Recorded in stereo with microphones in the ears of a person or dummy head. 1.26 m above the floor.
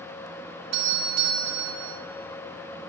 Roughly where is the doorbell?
Right.